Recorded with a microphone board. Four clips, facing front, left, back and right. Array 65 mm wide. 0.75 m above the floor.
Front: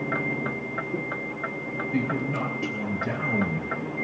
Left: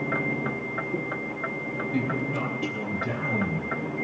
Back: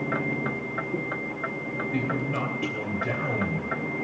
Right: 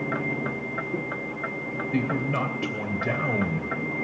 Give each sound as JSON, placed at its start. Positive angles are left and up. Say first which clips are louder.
{"t": 1.9, "sound": "a man speaking", "louder": "right 3 dB, front 2 dB", "azimuth_deg": -100, "distance_m": 3.0}